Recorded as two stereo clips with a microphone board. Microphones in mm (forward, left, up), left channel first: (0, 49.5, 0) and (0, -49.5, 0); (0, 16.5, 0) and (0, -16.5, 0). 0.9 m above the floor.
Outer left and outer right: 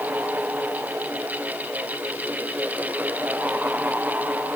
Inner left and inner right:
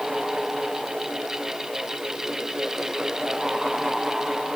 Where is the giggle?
No giggle in this recording.